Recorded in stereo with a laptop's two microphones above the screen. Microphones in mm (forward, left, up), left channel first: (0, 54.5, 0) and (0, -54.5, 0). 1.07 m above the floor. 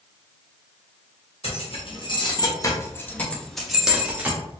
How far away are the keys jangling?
About 1.4 m.